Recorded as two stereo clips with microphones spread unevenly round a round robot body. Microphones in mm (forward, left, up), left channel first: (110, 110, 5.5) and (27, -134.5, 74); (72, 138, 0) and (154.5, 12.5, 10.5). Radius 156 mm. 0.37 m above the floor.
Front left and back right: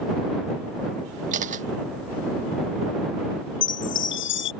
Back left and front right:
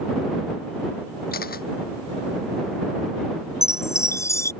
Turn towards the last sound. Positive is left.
turn(degrees=55)